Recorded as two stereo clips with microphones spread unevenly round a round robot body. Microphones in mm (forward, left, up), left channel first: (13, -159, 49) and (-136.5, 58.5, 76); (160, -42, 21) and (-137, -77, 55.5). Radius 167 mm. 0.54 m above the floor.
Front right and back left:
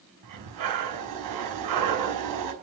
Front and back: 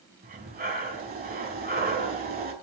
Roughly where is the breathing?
Behind left.